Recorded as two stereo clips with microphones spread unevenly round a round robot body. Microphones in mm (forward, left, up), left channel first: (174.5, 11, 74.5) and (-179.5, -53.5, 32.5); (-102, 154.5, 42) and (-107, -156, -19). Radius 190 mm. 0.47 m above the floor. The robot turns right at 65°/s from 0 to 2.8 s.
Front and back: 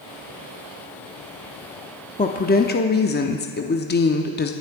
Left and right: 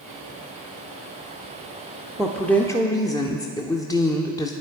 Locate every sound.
2.2 s a woman speaking: 40° right, 0.8 m; by 4.5 s straight ahead, 0.8 m